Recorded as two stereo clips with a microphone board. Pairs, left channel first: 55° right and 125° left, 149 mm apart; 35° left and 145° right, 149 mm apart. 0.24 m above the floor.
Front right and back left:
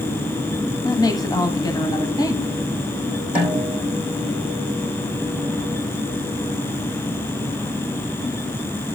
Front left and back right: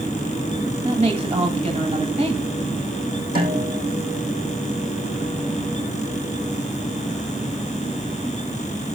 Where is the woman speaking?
115° right, 1.4 m.